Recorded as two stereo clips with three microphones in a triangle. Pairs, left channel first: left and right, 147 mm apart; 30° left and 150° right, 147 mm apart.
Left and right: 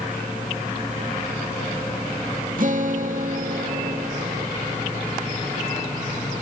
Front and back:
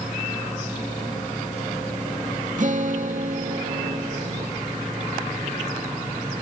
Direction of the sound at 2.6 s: 115° right.